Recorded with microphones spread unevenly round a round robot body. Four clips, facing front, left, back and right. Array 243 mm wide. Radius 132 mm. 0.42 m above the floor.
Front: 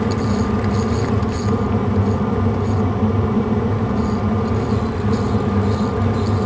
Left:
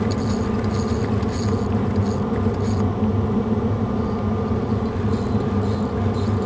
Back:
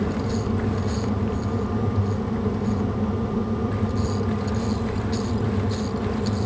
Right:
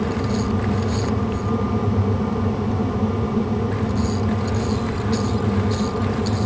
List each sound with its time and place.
Only background noise.